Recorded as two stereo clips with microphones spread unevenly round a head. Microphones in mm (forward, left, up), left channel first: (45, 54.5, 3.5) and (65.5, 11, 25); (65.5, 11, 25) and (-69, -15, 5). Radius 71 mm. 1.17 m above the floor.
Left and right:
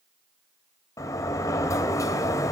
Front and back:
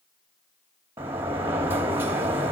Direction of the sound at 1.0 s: 115° left.